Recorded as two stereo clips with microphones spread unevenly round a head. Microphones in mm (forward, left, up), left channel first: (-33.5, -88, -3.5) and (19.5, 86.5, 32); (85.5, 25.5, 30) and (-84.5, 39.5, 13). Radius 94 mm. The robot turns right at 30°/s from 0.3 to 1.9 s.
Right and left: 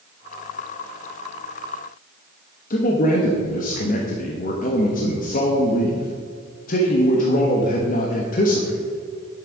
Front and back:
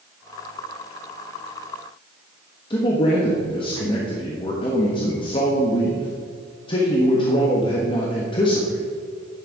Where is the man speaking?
70° right, 1.1 m.